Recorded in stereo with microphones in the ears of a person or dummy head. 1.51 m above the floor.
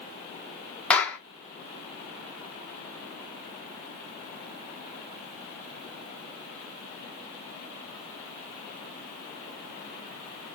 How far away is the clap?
About 1.2 m.